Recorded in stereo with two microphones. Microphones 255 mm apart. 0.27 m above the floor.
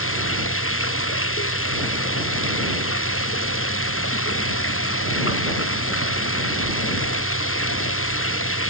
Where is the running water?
55° left (ahead or behind).